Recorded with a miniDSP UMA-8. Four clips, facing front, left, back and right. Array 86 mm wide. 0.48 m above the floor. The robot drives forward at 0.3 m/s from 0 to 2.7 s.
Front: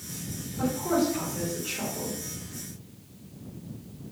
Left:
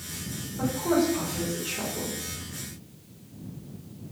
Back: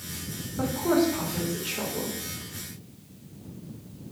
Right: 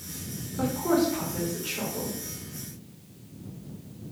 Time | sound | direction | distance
0.6 | a woman speaking | 145° right | 1.1 m